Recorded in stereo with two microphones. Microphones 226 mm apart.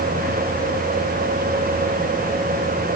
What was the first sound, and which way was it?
Only background noise.